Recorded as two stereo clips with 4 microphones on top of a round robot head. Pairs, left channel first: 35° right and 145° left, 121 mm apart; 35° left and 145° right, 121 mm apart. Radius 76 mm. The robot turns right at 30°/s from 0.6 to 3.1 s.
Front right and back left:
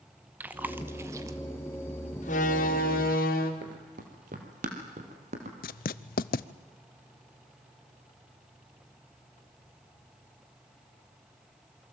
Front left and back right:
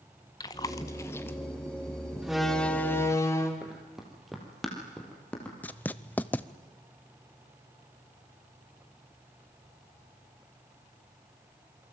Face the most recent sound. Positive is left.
turn(degrees=-45)